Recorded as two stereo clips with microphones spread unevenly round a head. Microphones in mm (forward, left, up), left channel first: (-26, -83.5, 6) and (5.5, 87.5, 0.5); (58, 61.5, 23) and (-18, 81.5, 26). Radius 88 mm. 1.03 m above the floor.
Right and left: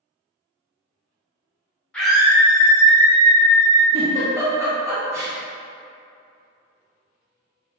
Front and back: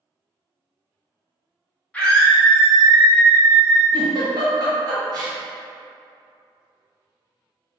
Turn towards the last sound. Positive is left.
turn(degrees=150)